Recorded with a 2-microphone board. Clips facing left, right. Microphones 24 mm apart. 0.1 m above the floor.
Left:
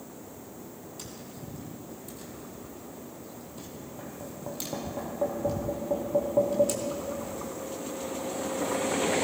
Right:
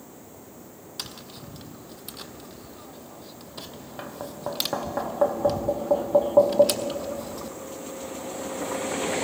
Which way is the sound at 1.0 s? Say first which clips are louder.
Right 8 dB; 70° right (ahead or behind).